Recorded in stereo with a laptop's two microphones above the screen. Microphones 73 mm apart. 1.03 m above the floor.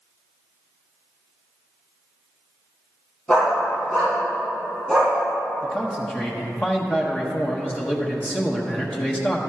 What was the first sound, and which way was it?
A dog barking, 15° left (ahead or behind).